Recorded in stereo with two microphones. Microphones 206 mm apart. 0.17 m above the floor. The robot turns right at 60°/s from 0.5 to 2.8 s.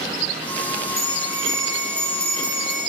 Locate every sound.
1.0 s a bell: 130° right, 5.5 m; by 2.9 s 20° right, 5.5 m